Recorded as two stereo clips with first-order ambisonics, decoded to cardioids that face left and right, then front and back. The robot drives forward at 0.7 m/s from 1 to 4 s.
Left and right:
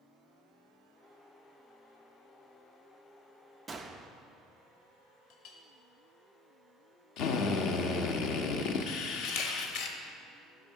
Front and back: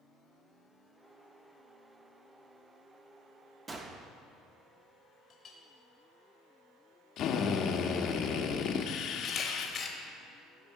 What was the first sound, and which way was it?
A gunshot, 145° right.